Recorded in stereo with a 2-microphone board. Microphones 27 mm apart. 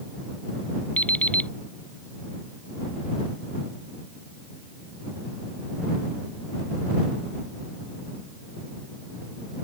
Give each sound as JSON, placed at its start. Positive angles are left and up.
{"t": 1.0, "sound": "an alarm clock", "side_deg": 60}